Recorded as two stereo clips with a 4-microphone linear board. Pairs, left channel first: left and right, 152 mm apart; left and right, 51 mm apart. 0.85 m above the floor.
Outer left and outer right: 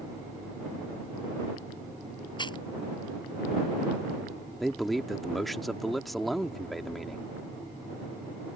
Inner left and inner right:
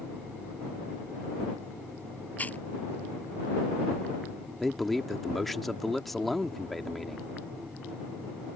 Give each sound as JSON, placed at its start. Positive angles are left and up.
{"t": 2.4, "sound": "chewing", "side_deg": 30}
{"t": 4.6, "sound": "a man speaking", "side_deg": 0}